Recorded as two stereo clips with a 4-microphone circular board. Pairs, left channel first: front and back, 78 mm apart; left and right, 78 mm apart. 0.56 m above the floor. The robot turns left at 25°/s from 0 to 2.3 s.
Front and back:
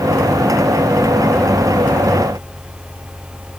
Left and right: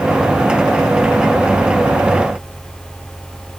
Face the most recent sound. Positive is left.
No sound to turn to.